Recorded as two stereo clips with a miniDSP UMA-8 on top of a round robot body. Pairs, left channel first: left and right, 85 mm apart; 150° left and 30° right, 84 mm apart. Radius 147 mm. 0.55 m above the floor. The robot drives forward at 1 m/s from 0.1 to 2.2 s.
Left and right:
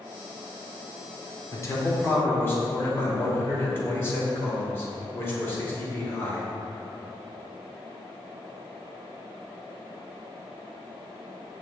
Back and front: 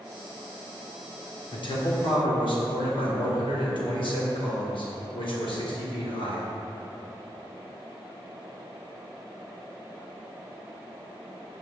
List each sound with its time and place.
1.5 s a man speaking: 140° left, 1.5 m; by 6.5 s 155° left, 2 m